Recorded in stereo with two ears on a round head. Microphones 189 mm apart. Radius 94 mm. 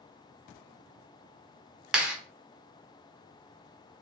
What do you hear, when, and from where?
1.9 s a clap: 5° right (ahead or behind), 1.0 m